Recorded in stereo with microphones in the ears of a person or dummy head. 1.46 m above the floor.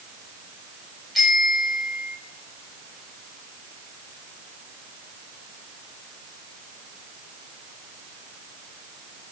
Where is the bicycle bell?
5° left (ahead or behind), 6.5 m.